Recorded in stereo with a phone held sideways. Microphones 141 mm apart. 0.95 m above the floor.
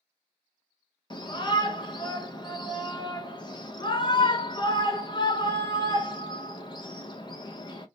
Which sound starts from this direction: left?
A shout, at 1.1 s.